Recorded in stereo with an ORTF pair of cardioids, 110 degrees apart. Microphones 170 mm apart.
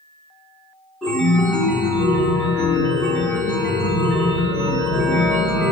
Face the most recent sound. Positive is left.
turn(degrees=5)